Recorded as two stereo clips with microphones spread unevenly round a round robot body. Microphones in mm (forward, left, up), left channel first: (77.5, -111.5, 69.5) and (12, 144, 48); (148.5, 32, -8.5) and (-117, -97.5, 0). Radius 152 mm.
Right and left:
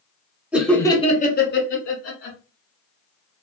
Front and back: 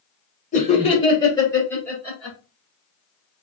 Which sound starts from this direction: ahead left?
Laughter, at 0.5 s.